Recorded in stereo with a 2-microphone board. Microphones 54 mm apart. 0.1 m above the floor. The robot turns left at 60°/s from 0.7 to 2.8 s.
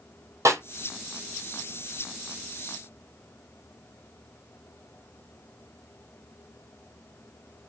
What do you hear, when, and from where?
0.5 s a snare drum: 70° right (ahead or behind), 1.5 m